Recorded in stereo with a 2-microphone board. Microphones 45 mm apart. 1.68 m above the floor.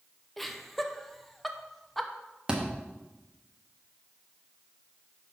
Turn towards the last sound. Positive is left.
turn(degrees=-20)  # may be behind; listen again after turning